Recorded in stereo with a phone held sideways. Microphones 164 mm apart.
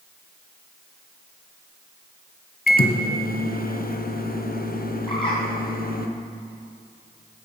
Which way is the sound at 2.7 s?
65° left (ahead or behind).